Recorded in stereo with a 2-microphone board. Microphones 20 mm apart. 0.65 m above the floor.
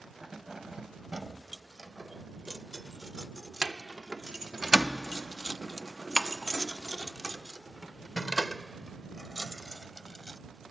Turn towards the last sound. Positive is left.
turn(degrees=30)  # may be behind; listen again after turning